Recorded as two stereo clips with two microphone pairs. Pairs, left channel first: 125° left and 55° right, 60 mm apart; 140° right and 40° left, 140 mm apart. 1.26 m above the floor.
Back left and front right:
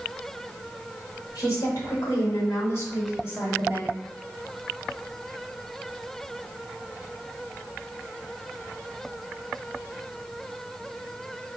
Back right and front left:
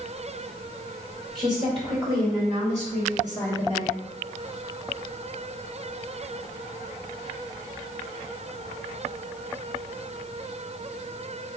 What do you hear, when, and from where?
1.4 s a woman speaking: 100° left, 2 m; by 3.9 s 60° left, 2.5 m